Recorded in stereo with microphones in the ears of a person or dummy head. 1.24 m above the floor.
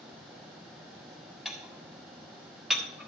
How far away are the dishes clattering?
About 1.1 m.